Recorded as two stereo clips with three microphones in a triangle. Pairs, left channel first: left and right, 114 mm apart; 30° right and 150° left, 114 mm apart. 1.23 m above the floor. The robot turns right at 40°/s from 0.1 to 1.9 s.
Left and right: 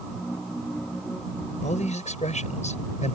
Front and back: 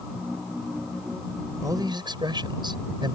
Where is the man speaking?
85° left; by 3.2 s 100° left.